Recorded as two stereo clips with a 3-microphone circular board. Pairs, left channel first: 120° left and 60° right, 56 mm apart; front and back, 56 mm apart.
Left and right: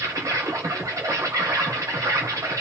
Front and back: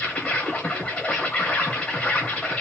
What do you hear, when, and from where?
0.0 s an insect: 65° right, 1.1 m